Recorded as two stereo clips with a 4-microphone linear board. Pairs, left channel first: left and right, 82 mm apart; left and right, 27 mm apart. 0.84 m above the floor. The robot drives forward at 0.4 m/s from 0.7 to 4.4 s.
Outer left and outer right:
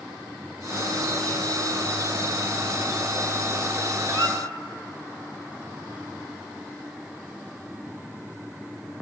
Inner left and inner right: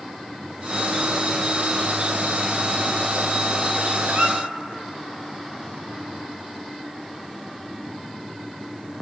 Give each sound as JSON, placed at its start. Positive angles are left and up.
{"t": 4.1, "sound": "a squeak", "side_deg": -65, "distance_m": 3.0}